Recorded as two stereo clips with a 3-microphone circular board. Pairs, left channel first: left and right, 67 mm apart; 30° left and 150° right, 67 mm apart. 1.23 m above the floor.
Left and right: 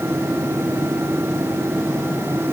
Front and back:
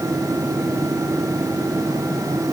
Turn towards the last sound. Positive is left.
No sound to turn to.